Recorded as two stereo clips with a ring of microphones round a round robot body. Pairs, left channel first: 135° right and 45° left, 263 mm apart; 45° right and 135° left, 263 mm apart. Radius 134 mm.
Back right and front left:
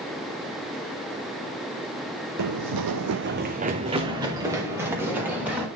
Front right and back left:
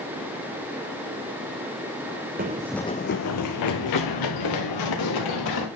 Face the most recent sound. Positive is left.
turn(degrees=-40)